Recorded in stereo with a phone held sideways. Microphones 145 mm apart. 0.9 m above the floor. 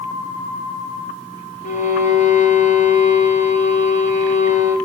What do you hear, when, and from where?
1.6 s a violin: 60° left (ahead or behind), 2.5 m